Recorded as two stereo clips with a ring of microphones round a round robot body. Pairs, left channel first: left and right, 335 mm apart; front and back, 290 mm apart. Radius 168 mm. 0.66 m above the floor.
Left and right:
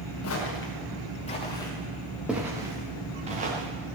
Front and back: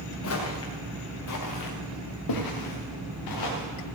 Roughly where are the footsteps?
Ahead left.